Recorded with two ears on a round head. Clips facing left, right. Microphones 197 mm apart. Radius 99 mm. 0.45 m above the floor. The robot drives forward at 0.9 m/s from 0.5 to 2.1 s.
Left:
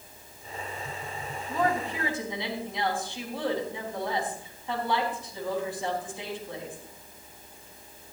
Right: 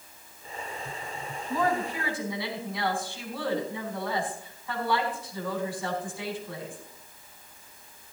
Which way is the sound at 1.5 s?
25° left (ahead or behind).